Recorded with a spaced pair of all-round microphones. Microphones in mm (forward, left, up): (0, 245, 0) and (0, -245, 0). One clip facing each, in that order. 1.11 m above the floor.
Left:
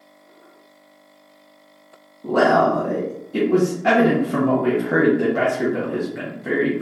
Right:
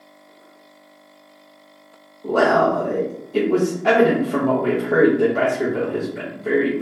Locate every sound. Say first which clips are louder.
2.2 s a man speaking: even; 30° left (ahead or behind), 0.7 m